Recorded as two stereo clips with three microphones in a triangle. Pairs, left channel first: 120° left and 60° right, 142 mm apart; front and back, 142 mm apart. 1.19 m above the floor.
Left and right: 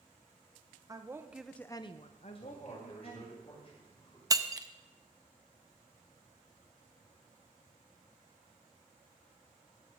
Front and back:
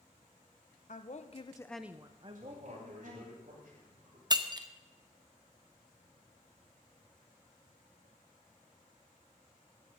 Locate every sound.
0.9 s a woman speaking: straight ahead, 1.1 m; by 3.4 s 155° left, 2 m
2.4 s a man speaking: 165° left, 6.5 m
4.3 s breaking glass: 125° right, 0.7 m